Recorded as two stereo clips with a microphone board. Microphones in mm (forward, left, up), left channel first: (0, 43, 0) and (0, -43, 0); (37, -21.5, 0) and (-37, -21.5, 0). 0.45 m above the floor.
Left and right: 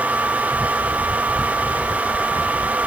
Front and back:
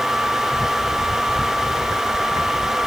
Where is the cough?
No cough in this recording.